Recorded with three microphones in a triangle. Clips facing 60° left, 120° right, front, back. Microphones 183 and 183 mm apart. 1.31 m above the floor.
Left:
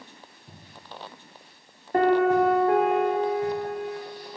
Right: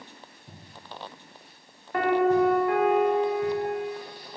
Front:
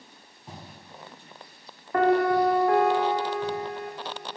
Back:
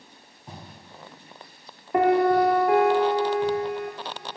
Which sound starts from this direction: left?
A piano, at 1.9 s.